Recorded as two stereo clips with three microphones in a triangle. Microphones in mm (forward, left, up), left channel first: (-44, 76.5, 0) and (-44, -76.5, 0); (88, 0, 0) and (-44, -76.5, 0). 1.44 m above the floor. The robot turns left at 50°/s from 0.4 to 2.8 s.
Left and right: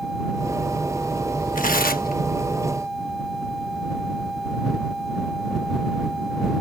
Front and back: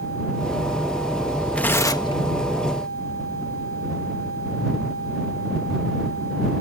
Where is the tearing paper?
110° left; by 2.2 s 80° left.